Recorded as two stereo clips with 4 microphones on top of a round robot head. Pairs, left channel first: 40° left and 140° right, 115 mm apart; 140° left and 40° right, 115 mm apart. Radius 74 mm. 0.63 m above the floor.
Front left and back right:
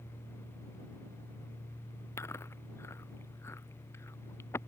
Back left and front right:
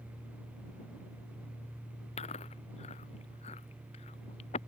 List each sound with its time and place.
2.2 s chewing: 110° left